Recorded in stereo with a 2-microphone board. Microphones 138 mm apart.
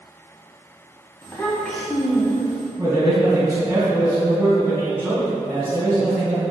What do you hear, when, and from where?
1.2 s a child speaking: 20° left (ahead or behind), 0.9 m; by 2.7 s 20° right (ahead or behind), 0.9 m
2.8 s a man speaking: 20° right (ahead or behind), 1.9 m